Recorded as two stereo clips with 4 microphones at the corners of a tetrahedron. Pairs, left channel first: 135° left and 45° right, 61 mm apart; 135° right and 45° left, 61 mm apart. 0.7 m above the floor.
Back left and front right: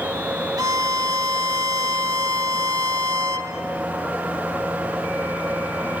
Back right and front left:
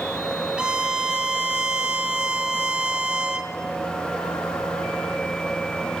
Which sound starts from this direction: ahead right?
A violin, at 0.6 s.